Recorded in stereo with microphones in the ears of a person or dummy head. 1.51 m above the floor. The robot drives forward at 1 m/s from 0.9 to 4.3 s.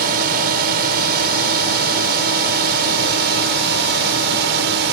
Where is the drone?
55° right (ahead or behind); by 4.9 s 65° right (ahead or behind).